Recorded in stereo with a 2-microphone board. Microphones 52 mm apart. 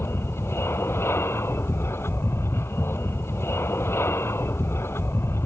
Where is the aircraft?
55° left (ahead or behind).